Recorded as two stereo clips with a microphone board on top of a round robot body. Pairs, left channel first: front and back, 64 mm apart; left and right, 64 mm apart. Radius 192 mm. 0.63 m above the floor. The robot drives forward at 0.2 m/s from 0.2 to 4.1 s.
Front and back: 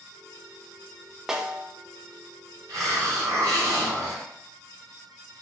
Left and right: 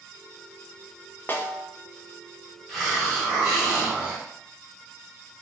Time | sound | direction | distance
1.3 | a snare drum | 105° left | 0.7 m
2.7 | a hiss | 175° left | 1.6 m